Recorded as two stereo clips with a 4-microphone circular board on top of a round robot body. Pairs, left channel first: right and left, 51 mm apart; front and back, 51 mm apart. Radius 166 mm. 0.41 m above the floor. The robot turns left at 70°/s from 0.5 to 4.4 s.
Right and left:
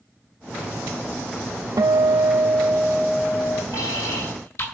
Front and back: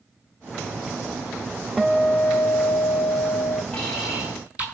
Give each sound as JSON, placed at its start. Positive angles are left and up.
{"t": 1.8, "sound": "a guitar", "azimuth_deg": 90, "distance_m": 0.6}
{"t": 3.7, "sound": "an alarm", "azimuth_deg": -70, "distance_m": 7.0}